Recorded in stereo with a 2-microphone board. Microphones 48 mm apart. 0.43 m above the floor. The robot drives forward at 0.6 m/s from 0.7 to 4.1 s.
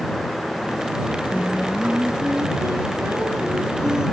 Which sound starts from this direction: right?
Singing, at 1.3 s.